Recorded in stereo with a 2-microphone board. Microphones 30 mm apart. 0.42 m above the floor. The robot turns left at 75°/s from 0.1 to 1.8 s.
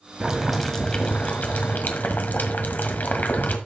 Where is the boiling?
150° right, 1.7 m; by 3.6 s 90° left, 1.7 m.